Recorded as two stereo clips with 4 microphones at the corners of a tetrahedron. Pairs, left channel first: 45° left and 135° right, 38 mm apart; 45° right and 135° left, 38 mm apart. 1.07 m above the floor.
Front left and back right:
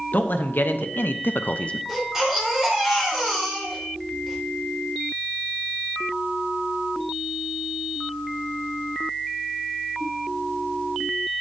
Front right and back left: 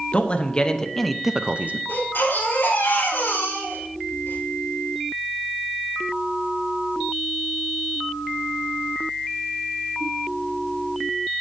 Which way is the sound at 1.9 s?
55° right.